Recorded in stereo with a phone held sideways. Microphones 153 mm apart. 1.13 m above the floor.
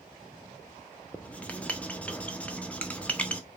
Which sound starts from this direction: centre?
Writing, at 1.1 s.